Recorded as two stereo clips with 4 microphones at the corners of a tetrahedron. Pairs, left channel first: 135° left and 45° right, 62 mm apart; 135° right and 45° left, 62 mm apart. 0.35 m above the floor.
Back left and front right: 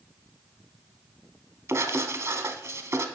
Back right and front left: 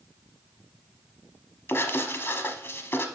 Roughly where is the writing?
Right.